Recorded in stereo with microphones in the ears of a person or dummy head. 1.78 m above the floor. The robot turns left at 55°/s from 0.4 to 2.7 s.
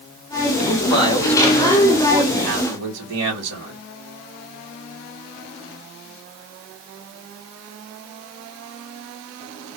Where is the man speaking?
55° left, 2 m; by 3.8 s 65° right, 2 m.